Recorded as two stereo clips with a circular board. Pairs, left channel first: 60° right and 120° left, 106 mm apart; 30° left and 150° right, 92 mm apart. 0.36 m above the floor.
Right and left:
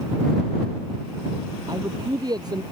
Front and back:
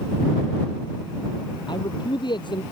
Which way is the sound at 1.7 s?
65° left.